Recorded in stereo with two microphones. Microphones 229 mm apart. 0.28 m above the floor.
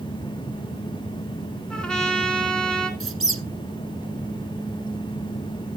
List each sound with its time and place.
1.7 s a trumpet: 5° left (ahead or behind), 1.7 m
3.0 s a squeak: 65° right (ahead or behind), 1.4 m